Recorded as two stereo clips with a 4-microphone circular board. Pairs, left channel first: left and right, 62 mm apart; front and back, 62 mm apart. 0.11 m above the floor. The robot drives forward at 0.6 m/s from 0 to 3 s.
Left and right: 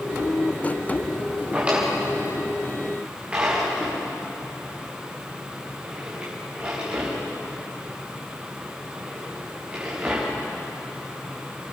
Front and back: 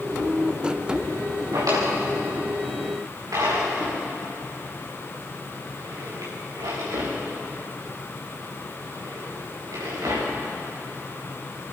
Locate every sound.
1.5 s a drawer: 160° right, 7.5 m